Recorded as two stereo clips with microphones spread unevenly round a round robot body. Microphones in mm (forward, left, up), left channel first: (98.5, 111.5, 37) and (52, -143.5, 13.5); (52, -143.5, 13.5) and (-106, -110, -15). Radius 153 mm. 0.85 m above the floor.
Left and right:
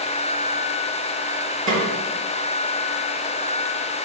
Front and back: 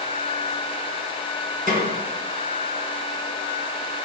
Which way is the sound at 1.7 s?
155° right.